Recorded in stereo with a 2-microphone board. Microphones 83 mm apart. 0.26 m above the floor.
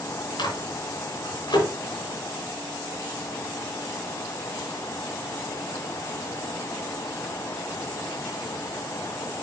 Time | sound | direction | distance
0.4 | a microwave | 65° left (ahead or behind) | 3 m